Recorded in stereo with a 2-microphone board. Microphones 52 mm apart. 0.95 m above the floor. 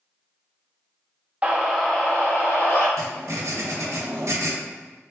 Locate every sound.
1.4 s a scream: 25° right (ahead or behind), 0.7 m; by 2.9 s 45° left (ahead or behind), 1.0 m
3.0 s writing: 60° right (ahead or behind), 0.6 m